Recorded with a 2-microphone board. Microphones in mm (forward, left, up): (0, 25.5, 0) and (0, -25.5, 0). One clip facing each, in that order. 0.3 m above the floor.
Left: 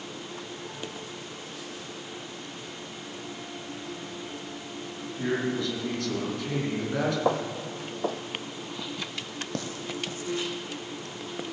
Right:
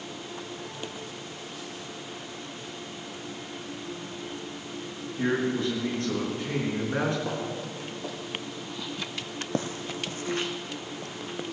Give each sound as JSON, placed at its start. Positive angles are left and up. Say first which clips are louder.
{"t": 5.2, "sound": "a man speaking", "louder": "right 2 dB", "side_deg": -25, "distance_m": 4.0}
{"t": 7.2, "sound": "footsteps", "louder": "left 5 dB", "side_deg": 75, "distance_m": 1.0}